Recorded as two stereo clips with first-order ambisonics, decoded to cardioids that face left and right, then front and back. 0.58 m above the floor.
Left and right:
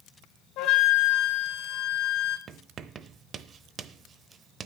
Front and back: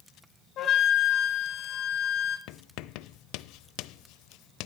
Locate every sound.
0.6 s a flute: 50° left, 2 m
2.5 s writing: 25° right, 0.7 m